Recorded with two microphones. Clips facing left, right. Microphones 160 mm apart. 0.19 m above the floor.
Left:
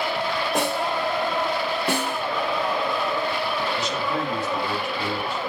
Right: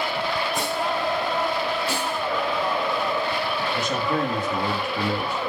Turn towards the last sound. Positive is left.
turn(degrees=-50)  # may be behind; listen again after turning